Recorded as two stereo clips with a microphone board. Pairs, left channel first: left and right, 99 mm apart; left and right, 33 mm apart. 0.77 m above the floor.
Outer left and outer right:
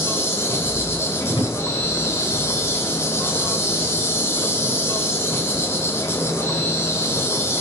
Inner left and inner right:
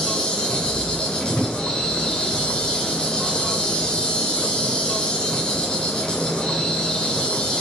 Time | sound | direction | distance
0.0 | an insect | 25° left (ahead or behind) | 1.9 m
1.3 | a drawer | 55° left (ahead or behind) | 5.5 m